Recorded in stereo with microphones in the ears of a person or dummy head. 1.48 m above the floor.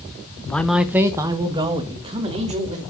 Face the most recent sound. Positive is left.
turn(degrees=-30)  # may be behind; listen again after turning